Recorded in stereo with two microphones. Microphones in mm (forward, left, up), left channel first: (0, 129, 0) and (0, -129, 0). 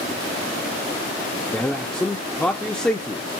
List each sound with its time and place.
1.5 s a man speaking: 5° left (ahead or behind), 0.7 m